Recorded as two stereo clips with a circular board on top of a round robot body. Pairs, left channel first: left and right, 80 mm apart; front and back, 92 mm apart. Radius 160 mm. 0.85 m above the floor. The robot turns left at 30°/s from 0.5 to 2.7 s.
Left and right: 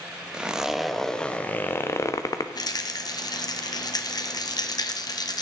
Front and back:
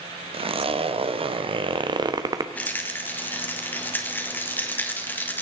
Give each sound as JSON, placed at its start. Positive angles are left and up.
{"t": 0.3, "sound": "a zipper", "azimuth_deg": -170, "distance_m": 1.0}
{"t": 2.5, "sound": "a rattle", "azimuth_deg": 70, "distance_m": 1.7}